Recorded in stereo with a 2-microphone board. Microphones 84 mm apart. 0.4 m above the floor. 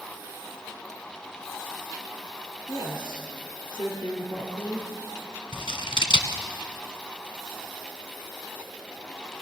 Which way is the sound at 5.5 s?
80° left.